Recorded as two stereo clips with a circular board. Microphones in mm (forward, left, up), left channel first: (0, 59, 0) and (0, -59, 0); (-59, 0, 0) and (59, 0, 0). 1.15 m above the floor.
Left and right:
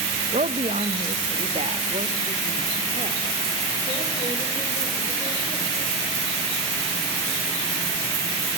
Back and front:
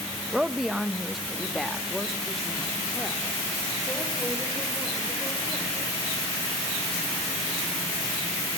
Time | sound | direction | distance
0.3 | a woman speaking | 85° right | 0.7 m